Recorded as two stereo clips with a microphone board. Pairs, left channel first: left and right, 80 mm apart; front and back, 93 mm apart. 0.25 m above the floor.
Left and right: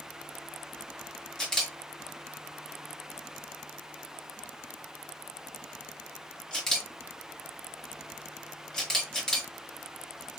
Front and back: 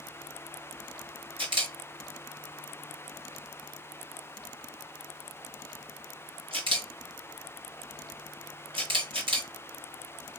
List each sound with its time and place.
1.4 s a camera shutter: 170° left, 4 m